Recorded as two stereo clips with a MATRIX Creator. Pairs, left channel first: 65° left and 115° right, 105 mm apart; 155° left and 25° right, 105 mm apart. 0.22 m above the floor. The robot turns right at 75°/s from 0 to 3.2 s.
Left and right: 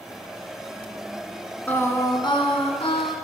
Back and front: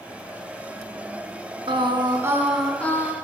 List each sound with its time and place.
1.7 s singing: 5° right, 1.2 m; by 3.1 s 105° left, 1.2 m